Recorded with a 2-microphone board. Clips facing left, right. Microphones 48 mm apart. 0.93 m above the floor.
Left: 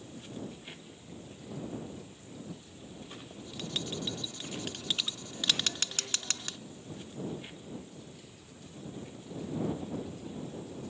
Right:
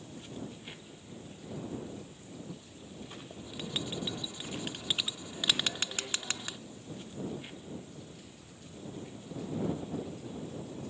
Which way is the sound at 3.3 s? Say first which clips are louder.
Even; 15° right (ahead or behind).